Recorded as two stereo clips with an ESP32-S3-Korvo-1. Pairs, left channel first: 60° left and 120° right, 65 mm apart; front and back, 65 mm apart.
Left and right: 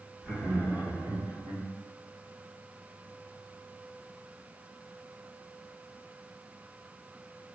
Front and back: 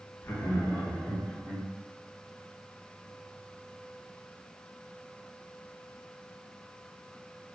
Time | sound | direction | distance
0.2 | laughter | 50° right | 1.8 m